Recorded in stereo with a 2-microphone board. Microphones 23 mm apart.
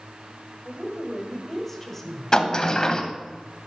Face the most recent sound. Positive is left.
turn(degrees=30)  # may be behind; listen again after turning